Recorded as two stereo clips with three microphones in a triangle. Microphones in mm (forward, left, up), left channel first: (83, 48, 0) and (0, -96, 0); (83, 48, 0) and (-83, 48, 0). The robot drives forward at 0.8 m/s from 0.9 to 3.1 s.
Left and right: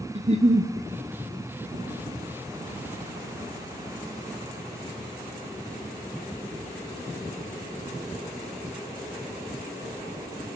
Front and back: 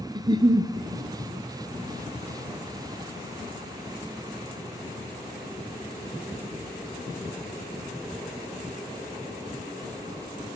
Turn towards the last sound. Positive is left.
turn(degrees=-170)